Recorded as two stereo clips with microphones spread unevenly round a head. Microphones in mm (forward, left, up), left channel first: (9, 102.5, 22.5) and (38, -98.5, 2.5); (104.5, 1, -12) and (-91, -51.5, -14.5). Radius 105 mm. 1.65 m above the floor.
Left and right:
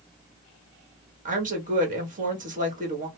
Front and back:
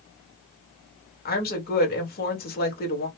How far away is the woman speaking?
About 1.7 m.